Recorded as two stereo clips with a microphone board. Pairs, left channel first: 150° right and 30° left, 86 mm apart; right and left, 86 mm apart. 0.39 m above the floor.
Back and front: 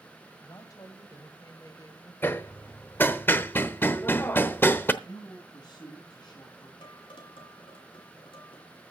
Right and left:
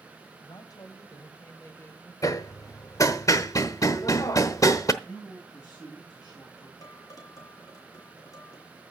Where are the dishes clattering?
135° right, 2.5 m.